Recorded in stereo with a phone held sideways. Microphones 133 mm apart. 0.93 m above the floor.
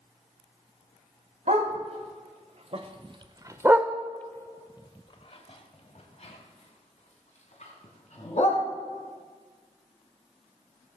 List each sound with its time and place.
1.5 s a dog barking: 60° right (ahead or behind), 1.5 m; by 8.6 s 65° left (ahead or behind), 2.5 m